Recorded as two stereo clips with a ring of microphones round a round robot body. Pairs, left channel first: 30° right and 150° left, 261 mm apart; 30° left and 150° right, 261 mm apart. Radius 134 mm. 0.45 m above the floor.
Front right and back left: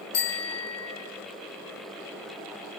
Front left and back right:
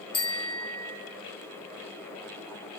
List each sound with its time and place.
0.1 s a bicycle bell: 40° right, 7 m